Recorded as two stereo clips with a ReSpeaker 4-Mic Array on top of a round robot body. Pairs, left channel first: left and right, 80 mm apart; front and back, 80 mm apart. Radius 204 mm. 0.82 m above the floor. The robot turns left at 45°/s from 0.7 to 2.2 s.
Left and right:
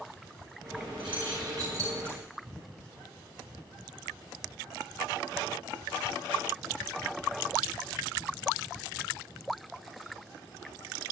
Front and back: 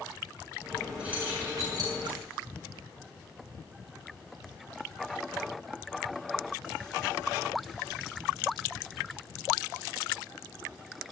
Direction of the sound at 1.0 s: 105° right.